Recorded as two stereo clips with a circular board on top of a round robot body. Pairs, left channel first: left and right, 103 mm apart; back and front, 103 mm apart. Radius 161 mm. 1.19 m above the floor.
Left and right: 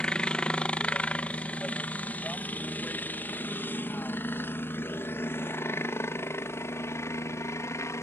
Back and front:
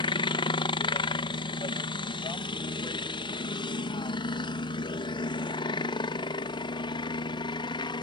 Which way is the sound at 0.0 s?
170° left.